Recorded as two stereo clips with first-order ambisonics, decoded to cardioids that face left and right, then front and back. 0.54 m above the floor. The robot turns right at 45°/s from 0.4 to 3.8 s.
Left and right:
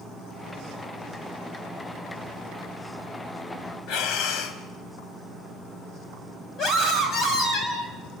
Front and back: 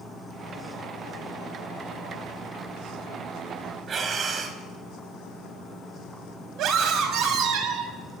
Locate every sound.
3.9 s breathing: 120° left, 2 m
6.6 s a scream: 145° left, 3.5 m